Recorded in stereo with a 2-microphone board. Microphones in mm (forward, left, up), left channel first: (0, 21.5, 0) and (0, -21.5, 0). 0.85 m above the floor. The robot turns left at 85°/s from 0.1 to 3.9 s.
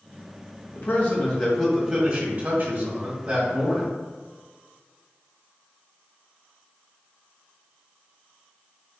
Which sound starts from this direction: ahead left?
A man speaking, at 0.8 s.